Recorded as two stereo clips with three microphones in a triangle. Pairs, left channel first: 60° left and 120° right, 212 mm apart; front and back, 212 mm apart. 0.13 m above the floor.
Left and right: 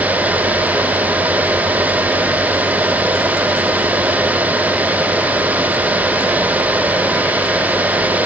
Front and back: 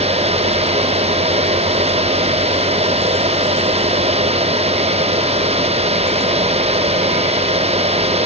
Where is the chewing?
No chewing in this recording.